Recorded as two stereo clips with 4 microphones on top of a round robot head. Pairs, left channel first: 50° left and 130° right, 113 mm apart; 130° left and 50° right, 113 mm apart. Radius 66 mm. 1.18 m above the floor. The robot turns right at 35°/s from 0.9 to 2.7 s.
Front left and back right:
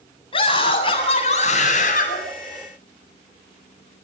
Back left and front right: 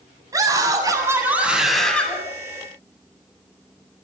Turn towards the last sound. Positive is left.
turn(degrees=70)